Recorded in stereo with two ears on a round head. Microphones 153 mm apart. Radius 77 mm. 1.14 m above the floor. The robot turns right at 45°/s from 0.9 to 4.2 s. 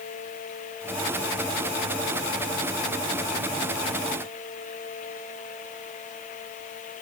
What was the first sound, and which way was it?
Only background noise.